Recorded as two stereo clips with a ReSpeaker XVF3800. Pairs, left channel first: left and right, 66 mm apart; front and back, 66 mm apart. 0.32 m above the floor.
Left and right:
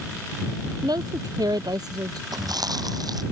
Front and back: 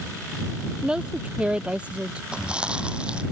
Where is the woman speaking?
100° right; by 2.2 s 105° right.